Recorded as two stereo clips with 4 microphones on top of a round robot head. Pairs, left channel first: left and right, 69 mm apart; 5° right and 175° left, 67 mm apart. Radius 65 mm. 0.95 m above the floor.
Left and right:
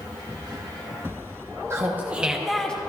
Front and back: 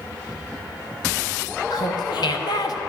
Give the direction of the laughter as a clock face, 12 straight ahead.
1 o'clock.